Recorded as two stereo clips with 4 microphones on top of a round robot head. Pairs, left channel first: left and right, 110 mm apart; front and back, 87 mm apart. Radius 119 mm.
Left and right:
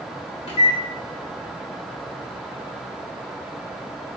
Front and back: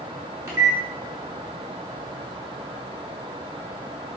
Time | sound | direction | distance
0.5 | a microwave | 125° left | 2 m